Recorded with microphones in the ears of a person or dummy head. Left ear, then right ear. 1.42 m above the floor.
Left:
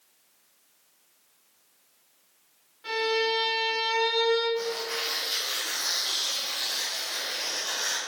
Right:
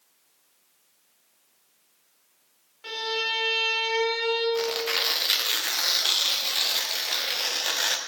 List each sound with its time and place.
2.8 s a violin: 30° right (ahead or behind), 2.5 m
4.5 s tearing paper: 35° right (ahead or behind), 0.6 m